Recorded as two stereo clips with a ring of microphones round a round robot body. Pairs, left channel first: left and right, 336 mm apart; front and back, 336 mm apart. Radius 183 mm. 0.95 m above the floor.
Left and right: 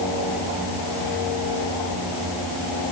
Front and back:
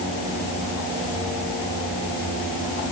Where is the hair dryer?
No hair dryer in this recording.